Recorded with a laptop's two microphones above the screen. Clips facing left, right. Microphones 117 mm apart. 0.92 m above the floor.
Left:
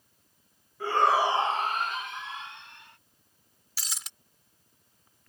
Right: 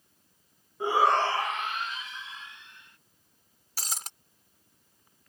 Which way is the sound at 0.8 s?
20° right (ahead or behind).